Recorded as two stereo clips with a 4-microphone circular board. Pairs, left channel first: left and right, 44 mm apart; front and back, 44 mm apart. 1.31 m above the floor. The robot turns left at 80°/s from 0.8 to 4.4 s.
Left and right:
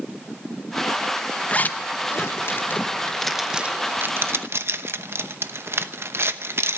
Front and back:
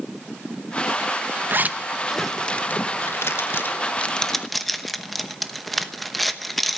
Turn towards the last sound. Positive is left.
turn(degrees=-85)